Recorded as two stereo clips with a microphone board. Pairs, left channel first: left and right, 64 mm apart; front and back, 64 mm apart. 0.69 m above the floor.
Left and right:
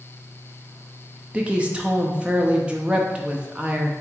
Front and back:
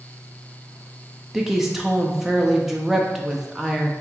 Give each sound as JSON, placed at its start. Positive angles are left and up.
{"t": 1.3, "sound": "a woman speaking", "azimuth_deg": -110, "distance_m": 0.5}